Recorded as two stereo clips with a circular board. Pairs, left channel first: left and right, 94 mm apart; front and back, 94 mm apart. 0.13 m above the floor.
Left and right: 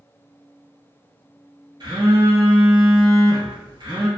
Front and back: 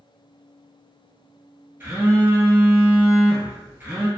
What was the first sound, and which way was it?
A phone buzzing, 115° right.